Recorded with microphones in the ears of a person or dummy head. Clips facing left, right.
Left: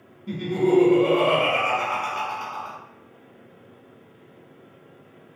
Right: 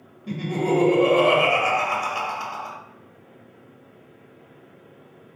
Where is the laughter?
85° right, 0.9 m.